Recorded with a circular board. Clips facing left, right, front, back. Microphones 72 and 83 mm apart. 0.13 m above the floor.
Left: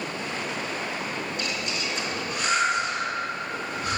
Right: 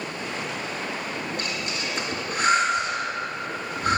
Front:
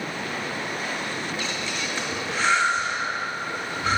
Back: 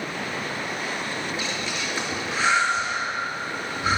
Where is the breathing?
110° right, 2.5 m.